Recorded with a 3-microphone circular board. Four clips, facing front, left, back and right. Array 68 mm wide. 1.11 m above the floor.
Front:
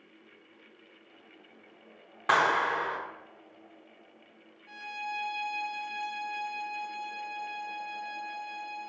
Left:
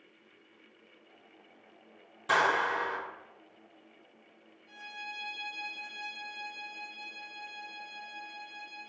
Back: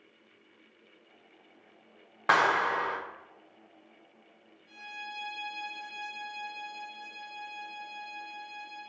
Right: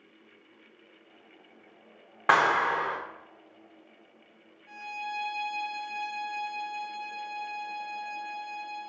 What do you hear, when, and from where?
2.3 s a clap: 110° right, 0.5 m
4.7 s a violin: 35° right, 0.6 m